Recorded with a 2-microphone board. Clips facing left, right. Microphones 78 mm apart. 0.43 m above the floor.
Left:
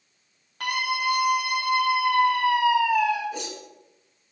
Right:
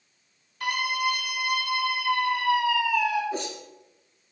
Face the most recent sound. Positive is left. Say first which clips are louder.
# right 3 dB
turn(degrees=-35)  # may be behind; listen again after turning